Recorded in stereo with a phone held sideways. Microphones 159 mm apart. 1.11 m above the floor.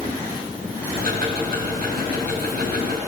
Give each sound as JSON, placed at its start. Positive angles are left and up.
{"t": 1.0, "sound": "ticking", "side_deg": -75, "distance_m": 4.0}